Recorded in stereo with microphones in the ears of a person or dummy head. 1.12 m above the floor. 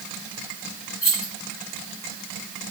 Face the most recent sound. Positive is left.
turn(degrees=40)  # may be behind; listen again after turning